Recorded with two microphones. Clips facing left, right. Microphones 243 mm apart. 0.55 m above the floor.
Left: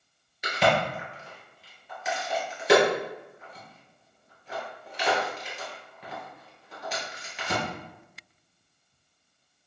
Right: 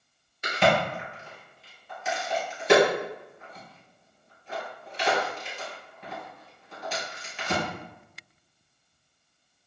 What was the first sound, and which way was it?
A crack, centre (ahead or behind).